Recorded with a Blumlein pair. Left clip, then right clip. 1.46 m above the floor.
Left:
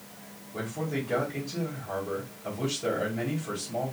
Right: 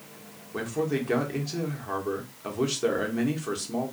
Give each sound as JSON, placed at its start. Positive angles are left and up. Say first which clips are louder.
{"t": 0.5, "sound": "a man speaking", "louder": "right 5 dB", "azimuth_deg": -65, "distance_m": 1.1}